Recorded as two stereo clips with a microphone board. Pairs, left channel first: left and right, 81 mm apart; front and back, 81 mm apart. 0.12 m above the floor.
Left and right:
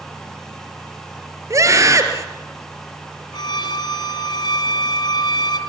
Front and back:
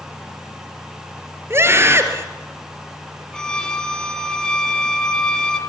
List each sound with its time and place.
1.5 s a scream: 130° right, 2.5 m
3.3 s a violin: 80° left, 1.4 m